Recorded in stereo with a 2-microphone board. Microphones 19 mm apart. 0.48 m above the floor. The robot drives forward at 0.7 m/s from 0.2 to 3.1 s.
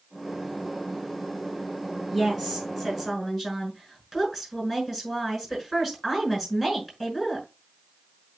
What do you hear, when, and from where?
2.1 s a woman speaking: 10° right (ahead or behind), 5.5 m